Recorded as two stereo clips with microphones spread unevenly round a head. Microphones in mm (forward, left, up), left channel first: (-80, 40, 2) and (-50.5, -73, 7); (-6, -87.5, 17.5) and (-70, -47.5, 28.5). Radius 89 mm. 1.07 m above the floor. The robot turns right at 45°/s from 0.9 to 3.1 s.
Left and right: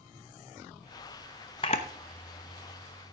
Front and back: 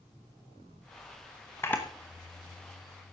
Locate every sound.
1.6 s a camera shutter: 40° left, 0.7 m; by 3.1 s 105° left, 0.7 m